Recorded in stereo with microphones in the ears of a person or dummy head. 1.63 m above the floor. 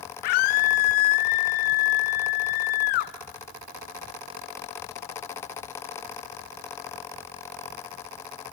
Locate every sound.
0.2 s a scream: 60° left (ahead or behind), 1.4 m